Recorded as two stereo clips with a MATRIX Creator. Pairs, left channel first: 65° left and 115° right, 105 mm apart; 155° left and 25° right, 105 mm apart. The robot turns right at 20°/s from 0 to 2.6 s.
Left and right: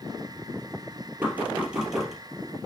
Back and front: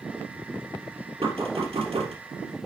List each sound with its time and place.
1.2 s knocking: 40° right, 3 m; by 2.1 s 25° right, 3 m